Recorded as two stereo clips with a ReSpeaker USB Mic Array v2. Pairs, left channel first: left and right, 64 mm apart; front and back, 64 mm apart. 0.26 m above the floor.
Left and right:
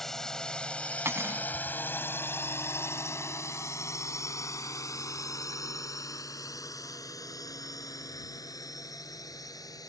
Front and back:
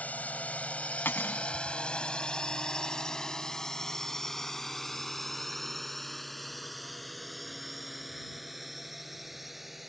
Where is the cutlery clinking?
50° right.